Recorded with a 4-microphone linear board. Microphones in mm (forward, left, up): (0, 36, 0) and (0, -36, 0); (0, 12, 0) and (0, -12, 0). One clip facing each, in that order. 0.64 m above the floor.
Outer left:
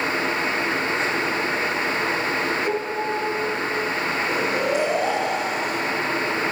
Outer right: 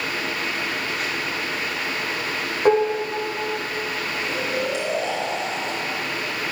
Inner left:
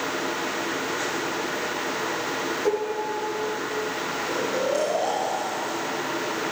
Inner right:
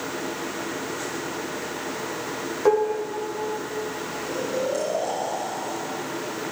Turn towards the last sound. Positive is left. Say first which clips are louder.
# outer left 2 dB, even
turn(degrees=40)  # may be behind; listen again after turning